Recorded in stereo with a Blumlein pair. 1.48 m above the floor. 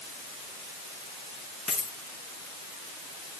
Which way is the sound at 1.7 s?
20° left.